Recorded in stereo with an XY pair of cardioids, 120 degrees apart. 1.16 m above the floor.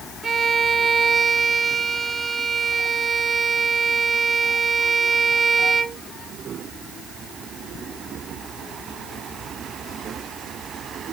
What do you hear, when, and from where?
0.2 s a violin: 25° right, 0.8 m